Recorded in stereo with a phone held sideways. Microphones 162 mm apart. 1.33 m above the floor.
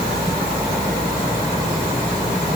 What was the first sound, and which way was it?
Only background noise.